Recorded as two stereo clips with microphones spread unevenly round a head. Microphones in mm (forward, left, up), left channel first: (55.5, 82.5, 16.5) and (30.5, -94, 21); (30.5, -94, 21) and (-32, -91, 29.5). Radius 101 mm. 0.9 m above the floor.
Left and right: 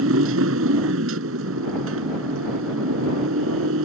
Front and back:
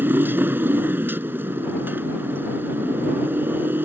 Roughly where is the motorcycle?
Behind right.